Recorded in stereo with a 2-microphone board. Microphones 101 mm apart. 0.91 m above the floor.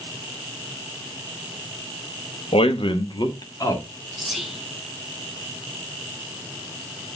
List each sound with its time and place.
2.5 s a man speaking: 70° left (ahead or behind), 0.9 m; by 3.8 s 35° left (ahead or behind), 1.9 m
4.2 s whispering: centre (ahead or behind), 0.7 m